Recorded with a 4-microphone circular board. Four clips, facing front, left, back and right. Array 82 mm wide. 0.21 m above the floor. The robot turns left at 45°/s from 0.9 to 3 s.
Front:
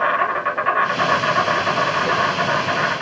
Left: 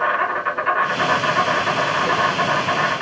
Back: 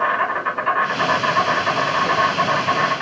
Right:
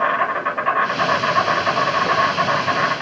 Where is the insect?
20° right, 1.8 m; by 3.0 s 115° right, 1.8 m.